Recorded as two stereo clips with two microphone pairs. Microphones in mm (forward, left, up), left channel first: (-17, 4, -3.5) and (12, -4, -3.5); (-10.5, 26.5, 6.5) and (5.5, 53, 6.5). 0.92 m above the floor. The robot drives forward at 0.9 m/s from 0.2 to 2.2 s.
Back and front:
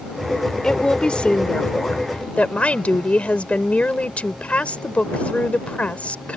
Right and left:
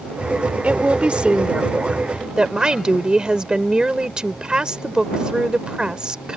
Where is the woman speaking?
105° left; by 6.4 s 125° left.